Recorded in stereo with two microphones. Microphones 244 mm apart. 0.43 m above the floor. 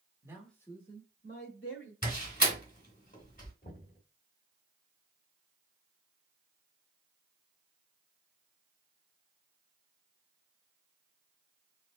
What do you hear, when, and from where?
0.2 s a man speaking: 15° right (ahead or behind), 1.2 m; by 1.9 s 60° left (ahead or behind), 2.5 m
2.0 s a door slam: 35° left (ahead or behind), 1.8 m
3.6 s knocking: 40° left (ahead or behind), 1.4 m